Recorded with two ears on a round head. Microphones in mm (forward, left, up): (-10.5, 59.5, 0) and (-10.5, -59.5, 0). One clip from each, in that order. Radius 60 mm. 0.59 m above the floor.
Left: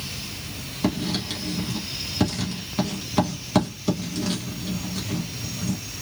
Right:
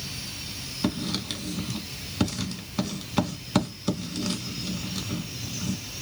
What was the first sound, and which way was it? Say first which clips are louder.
Writing: left 4 dB; 20° right (ahead or behind).